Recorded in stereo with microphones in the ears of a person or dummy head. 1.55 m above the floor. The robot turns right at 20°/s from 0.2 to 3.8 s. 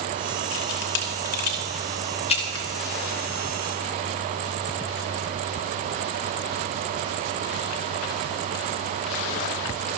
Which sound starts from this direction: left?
A camera shutter, at 0.5 s.